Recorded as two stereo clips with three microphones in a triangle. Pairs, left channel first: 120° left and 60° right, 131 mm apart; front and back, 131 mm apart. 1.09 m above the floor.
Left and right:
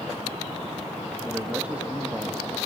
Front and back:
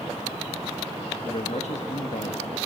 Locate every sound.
1.2 s a man speaking: 20° left, 1.6 m